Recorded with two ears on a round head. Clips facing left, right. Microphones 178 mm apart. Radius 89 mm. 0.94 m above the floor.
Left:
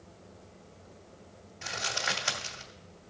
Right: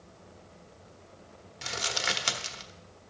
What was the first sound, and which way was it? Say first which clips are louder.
Crumpling: right 1 dB; 50° right (ahead or behind).